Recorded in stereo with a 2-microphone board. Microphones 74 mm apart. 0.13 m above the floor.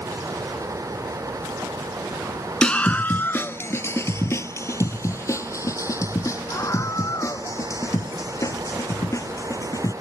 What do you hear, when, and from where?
2.6 s a scream: 10° left (ahead or behind); by 9.9 s 45° left (ahead or behind)